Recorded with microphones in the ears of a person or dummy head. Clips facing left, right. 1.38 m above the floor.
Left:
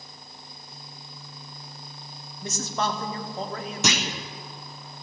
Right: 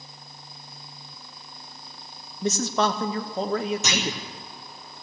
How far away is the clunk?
About 1.3 m.